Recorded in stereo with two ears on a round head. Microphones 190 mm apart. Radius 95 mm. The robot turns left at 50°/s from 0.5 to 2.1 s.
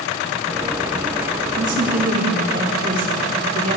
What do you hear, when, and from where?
1.5 s a woman speaking: 65° right (ahead or behind), 3.5 m; by 3.8 s 40° right (ahead or behind), 3.5 m